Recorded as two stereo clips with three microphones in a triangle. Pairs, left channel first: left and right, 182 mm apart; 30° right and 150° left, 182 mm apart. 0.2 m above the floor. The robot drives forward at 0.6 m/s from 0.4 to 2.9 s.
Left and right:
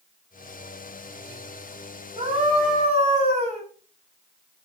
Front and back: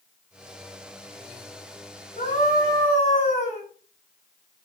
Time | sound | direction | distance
2.2 | a scream | 45° right | 2.5 m